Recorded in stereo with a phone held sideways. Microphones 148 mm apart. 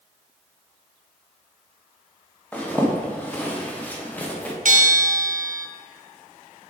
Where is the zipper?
10° left (ahead or behind), 1.0 m.